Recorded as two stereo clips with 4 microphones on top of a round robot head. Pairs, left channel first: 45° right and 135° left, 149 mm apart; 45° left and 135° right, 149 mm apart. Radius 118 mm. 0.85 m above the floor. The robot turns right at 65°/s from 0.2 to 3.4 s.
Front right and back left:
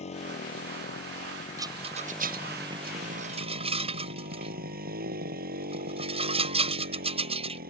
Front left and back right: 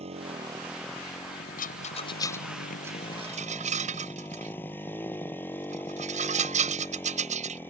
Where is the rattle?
65° left; by 7.6 s 175° right.